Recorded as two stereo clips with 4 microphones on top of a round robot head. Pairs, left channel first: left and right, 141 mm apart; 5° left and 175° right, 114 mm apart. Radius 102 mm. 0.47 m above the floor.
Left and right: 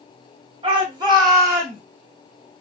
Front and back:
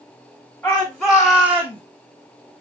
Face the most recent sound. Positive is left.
turn(degrees=-150)